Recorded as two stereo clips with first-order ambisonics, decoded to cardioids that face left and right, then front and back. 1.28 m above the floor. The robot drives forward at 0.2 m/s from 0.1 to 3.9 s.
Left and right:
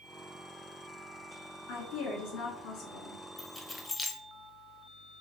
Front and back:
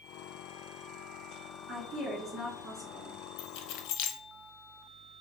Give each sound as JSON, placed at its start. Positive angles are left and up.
{"t": 1.7, "sound": "a woman speaking", "azimuth_deg": 105, "distance_m": 2.5}
{"t": 3.4, "sound": "keys jangling", "azimuth_deg": 10, "distance_m": 0.8}